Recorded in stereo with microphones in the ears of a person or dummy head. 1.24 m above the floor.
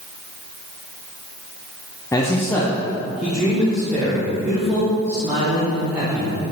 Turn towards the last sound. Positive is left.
turn(degrees=-15)  # may be behind; listen again after turning